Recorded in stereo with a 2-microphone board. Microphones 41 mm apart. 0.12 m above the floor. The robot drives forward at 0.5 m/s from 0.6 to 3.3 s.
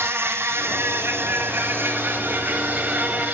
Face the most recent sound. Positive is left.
turn(degrees=-40)  # may be behind; listen again after turning